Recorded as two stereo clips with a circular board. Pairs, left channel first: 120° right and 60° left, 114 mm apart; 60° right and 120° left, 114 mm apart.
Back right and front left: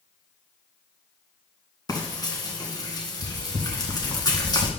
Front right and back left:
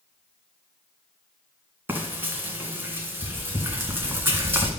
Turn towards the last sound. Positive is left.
turn(degrees=-170)